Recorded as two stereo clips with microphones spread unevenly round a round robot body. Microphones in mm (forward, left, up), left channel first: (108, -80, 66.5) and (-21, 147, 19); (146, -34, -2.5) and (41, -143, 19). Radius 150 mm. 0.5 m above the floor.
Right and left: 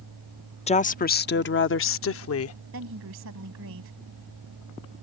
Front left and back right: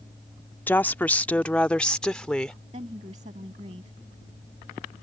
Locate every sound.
0.7 s a woman speaking: straight ahead; by 2.6 s 35° right
2.7 s a woman speaking: 160° left